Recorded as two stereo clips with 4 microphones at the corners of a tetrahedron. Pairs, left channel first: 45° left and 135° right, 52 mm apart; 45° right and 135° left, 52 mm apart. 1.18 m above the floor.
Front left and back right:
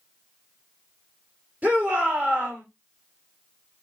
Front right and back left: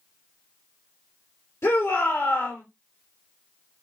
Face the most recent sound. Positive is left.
turn(degrees=-75)